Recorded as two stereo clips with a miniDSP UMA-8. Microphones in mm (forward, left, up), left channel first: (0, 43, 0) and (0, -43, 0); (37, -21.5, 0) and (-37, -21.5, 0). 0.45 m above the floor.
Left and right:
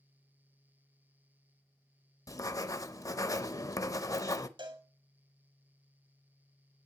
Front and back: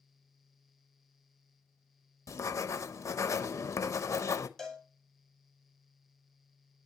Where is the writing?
45° left, 0.7 m.